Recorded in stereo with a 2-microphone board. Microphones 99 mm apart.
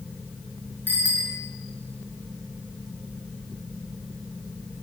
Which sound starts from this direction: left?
A bicycle bell, at 0.9 s.